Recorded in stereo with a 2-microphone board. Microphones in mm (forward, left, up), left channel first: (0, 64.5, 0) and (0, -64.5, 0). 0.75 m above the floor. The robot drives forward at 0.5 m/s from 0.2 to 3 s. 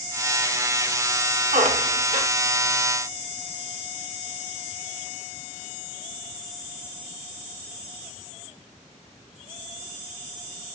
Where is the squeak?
80° right, 0.8 m; by 2.3 s 70° right (ahead or behind), 0.8 m.